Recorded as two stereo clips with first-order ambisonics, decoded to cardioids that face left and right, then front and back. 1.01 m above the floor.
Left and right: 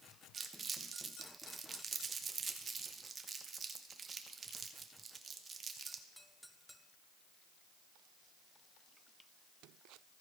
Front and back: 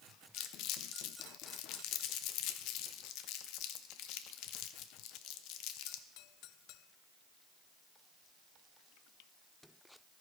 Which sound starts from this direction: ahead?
Crumpling, at 0.3 s.